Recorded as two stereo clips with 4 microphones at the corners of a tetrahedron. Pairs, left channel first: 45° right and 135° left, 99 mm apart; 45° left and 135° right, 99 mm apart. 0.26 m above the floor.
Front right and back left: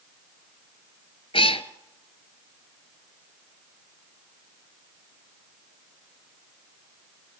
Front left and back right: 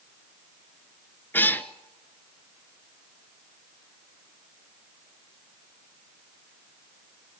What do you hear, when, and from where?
1.3 s a cat meowing: 25° right, 0.9 m